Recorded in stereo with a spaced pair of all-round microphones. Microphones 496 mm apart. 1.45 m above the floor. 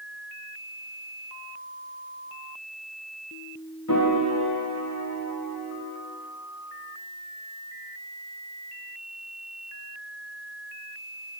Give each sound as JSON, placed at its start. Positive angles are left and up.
{"t": 3.9, "sound": "a piano", "side_deg": 35, "distance_m": 1.1}